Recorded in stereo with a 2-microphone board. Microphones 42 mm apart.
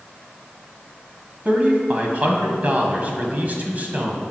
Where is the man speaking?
40° right (ahead or behind), 1.7 m.